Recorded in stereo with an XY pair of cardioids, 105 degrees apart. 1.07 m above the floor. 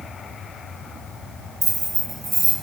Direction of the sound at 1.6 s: 40° right.